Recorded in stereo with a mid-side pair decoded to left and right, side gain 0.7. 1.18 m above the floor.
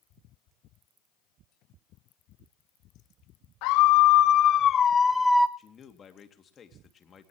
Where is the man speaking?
30° left, 2.5 m.